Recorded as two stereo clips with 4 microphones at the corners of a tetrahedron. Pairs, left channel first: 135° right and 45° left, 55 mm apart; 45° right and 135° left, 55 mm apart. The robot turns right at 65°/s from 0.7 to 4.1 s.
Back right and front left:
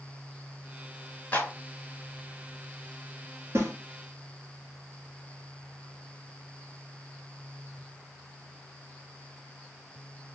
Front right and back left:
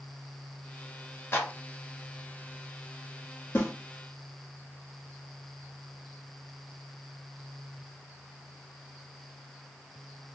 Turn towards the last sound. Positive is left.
turn(degrees=40)